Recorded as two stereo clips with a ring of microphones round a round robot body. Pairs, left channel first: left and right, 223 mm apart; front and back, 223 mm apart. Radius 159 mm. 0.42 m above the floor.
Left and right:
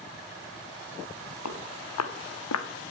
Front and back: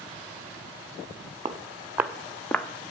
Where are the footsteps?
110° left, 1.7 m; by 2.7 s 80° left, 1.6 m.